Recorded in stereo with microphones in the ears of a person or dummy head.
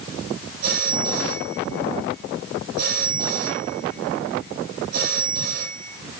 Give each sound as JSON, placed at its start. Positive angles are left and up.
{"t": 0.6, "sound": "a phone ringing", "side_deg": -55, "distance_m": 6.5}